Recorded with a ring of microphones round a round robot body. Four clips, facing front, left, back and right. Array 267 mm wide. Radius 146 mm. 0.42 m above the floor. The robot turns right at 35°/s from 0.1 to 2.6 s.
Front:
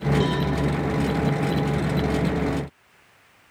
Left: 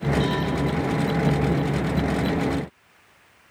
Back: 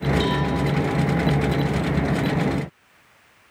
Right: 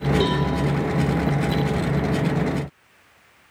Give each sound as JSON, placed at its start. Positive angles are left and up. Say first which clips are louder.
{"t": 0.2, "sound": "a cowbell", "louder": "right 3 dB, back 1 dB", "azimuth_deg": -75, "distance_m": 3.0}